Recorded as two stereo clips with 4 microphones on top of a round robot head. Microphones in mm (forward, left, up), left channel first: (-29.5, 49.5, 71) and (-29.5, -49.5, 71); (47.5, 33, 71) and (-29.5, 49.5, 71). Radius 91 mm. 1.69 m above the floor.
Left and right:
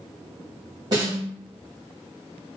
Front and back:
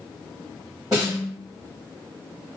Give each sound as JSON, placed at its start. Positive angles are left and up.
{"t": 0.9, "sound": "a snare drum", "azimuth_deg": -135, "distance_m": 1.4}